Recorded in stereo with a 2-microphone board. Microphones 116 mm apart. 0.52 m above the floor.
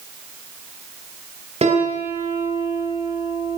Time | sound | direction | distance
1.6 | a piano | 60° right (ahead or behind) | 9.5 m